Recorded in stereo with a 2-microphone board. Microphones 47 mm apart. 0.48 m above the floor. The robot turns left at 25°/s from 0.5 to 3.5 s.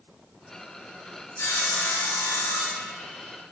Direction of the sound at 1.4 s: 75° left.